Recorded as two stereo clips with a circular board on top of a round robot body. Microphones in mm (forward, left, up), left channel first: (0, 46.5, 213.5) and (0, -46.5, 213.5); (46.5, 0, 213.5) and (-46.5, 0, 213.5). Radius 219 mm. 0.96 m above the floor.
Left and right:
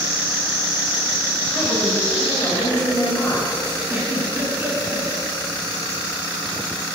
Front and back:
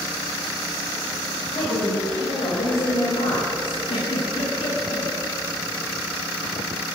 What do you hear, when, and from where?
1.5 s a woman speaking: straight ahead, 7 m; by 3.8 s 10° left, 6 m
3.9 s a giggle: 20° right, 9 m